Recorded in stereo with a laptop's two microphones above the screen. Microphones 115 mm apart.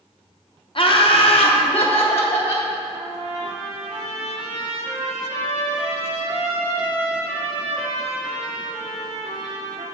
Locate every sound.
0.8 s laughter: 50° left (ahead or behind), 1.0 m; by 2.7 s 55° left (ahead or behind), 1.7 m
2.9 s a trumpet: 80° right, 2.5 m